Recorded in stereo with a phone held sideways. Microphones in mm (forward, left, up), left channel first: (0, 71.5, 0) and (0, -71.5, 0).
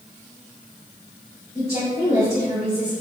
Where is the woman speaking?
25° left (ahead or behind), 1.7 m.